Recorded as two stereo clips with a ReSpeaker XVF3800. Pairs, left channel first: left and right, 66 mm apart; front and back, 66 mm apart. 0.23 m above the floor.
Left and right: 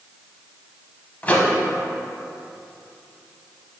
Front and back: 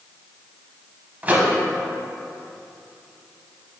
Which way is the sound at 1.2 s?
135° left.